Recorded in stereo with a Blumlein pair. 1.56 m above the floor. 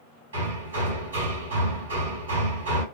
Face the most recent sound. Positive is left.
turn(degrees=-65)